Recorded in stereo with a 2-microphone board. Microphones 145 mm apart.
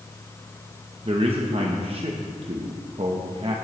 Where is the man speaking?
40° right (ahead or behind), 0.8 m.